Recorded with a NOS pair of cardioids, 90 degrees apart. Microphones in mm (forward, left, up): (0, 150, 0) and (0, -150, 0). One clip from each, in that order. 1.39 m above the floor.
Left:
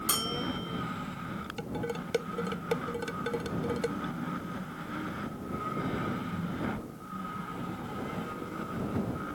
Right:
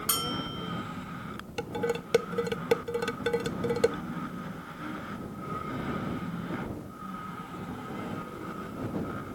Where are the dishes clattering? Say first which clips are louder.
Right 7 dB; 45° right.